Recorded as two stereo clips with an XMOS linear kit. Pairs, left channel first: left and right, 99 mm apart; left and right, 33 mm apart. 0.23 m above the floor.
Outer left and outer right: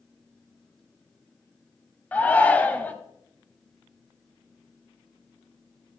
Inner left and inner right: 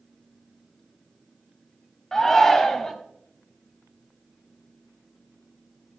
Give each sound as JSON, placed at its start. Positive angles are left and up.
{"t": 2.1, "sound": "a shout", "side_deg": 15, "distance_m": 1.2}